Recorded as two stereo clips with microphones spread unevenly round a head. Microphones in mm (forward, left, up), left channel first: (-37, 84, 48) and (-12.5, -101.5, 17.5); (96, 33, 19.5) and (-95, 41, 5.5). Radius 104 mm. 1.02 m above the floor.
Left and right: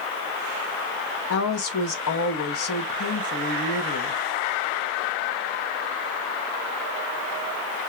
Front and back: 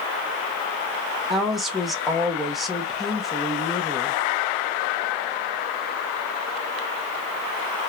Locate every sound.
1.3 s a woman speaking: 90° left, 1.1 m